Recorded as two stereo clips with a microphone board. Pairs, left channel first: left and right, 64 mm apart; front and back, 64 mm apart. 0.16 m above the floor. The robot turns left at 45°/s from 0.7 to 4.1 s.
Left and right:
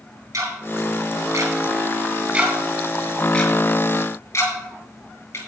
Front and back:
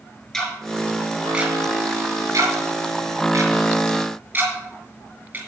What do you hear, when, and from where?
0.3 s ticking: 80° right, 3 m; by 5.4 s 125° left, 3 m